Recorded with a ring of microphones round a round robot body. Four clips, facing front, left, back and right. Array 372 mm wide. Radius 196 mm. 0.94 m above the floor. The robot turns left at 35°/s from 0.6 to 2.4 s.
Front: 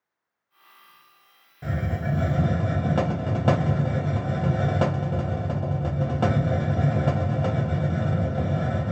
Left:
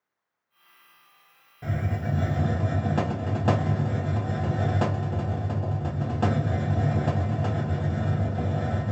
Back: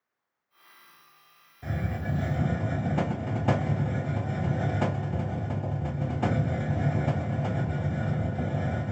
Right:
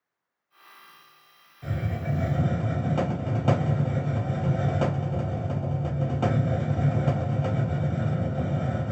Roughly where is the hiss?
Ahead left.